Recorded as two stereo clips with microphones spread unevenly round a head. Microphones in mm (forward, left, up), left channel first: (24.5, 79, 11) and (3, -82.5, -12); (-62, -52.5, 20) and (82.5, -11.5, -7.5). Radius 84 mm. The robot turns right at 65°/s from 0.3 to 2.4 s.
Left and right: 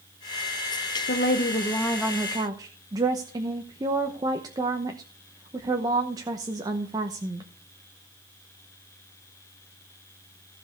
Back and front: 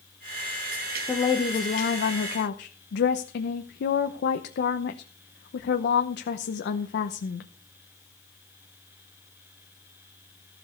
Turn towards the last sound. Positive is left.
turn(degrees=-160)